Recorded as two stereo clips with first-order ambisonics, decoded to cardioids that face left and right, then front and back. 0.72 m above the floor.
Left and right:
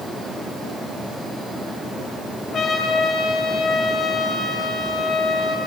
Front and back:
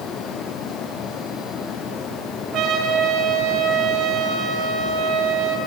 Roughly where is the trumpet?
Behind left.